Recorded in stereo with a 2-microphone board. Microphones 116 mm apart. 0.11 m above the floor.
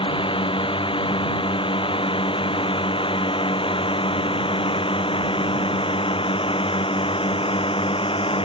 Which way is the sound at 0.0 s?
45° left (ahead or behind).